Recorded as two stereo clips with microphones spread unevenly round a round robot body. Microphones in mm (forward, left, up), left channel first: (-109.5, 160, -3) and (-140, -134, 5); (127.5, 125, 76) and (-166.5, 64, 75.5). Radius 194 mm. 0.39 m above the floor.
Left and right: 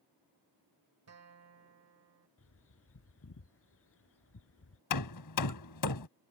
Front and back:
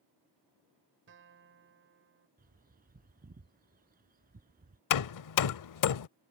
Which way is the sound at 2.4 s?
130° left.